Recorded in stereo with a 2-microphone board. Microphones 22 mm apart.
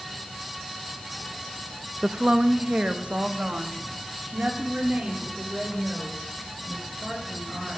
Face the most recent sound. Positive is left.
turn(degrees=-70)  # may be behind; listen again after turning